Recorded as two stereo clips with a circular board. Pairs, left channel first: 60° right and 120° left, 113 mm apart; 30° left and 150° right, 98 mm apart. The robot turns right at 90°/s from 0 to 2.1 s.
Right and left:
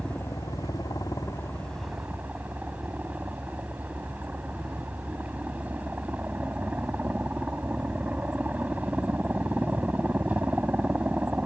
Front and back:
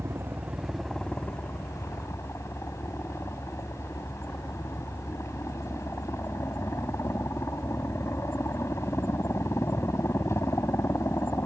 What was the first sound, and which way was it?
A helicopter, 135° right.